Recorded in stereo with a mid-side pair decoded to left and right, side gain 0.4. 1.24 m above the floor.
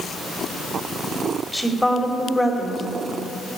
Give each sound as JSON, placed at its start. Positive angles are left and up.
{"t": 1.5, "sound": "a woman speaking", "azimuth_deg": -5, "distance_m": 4.0}